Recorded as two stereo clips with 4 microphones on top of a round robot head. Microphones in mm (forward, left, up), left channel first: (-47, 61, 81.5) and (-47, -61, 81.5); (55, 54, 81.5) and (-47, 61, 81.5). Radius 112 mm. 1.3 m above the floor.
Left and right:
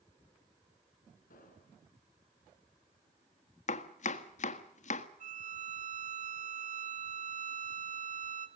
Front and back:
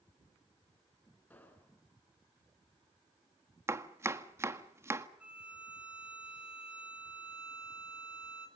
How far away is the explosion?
About 5 m.